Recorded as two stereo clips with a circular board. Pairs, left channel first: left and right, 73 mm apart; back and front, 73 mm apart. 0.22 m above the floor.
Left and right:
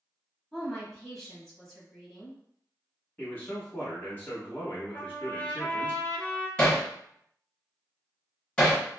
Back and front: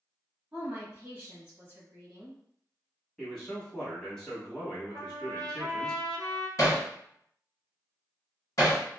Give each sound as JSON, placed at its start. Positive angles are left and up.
{"t": 0.5, "sound": "a woman speaking", "azimuth_deg": 5, "distance_m": 1.0}
{"t": 3.2, "sound": "a man speaking", "azimuth_deg": 110, "distance_m": 1.3}
{"t": 4.9, "sound": "a trumpet", "azimuth_deg": 20, "distance_m": 0.7}
{"t": 6.6, "sound": "hammering", "azimuth_deg": 160, "distance_m": 1.5}